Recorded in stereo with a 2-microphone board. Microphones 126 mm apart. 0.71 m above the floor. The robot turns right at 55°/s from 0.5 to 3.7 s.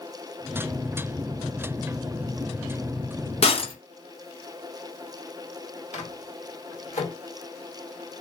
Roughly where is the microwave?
Left.